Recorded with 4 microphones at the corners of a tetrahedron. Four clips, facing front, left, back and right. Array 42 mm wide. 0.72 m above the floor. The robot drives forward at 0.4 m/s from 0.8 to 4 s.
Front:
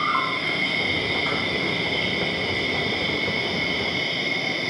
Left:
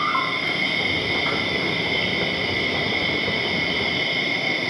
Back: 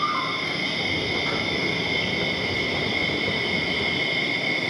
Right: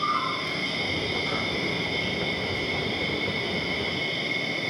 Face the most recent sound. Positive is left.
turn(degrees=100)